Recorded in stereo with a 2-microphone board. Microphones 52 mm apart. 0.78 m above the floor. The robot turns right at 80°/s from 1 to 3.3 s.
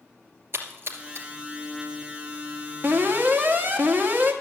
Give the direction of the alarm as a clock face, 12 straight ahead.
3 o'clock.